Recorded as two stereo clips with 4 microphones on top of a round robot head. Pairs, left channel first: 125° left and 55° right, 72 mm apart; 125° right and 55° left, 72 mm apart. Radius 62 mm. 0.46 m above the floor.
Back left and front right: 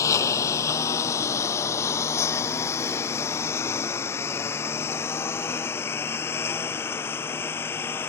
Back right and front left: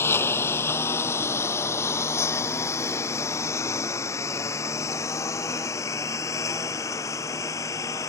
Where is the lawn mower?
175° left; by 8.1 s 175° right.